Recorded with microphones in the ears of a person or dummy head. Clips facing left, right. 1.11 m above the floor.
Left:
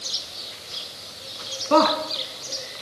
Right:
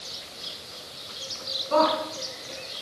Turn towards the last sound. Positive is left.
turn(degrees=75)  # may be behind; listen again after turning